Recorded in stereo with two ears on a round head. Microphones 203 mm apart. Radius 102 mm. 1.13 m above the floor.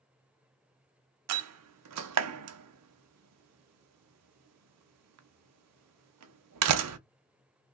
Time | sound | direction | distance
1.3 | a door slam | 75° right (ahead or behind) | 0.5 m